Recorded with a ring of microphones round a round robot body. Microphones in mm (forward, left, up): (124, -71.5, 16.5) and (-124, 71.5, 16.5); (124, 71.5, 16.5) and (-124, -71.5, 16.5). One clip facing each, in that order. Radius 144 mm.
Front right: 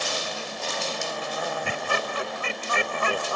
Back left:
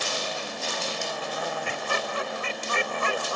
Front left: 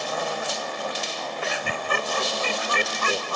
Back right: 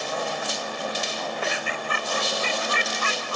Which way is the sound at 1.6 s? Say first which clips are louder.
Front right 1 dB, front left 2 dB; 15° right.